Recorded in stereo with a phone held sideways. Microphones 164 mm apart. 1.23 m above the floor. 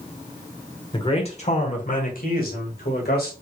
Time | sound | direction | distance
0.9 | a man speaking | 30° left (ahead or behind) | 1.0 m